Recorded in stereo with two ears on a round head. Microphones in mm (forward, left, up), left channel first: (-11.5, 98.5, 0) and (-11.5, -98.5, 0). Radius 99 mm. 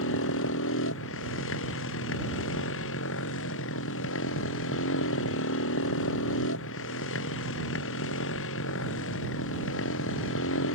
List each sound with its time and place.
0.0 s a motorcycle: 65° left (ahead or behind)